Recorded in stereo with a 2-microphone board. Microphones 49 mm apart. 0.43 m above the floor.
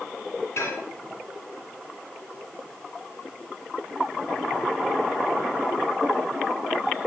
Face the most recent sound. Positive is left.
turn(degrees=60)  # may be behind; listen again after turning